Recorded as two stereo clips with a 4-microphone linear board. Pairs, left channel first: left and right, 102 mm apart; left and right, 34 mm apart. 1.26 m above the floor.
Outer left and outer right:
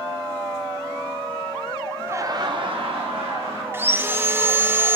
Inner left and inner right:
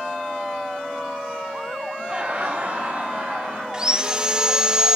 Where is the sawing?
20° right (ahead or behind), 0.6 m.